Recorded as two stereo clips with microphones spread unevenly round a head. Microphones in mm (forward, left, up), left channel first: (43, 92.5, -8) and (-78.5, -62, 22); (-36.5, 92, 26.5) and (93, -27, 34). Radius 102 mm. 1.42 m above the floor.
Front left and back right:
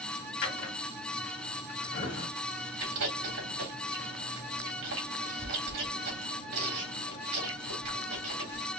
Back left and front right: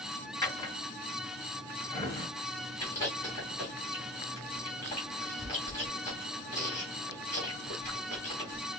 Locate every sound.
0.4 s a drawer: 75° left, 1.8 m
2.8 s chewing: 150° right, 3 m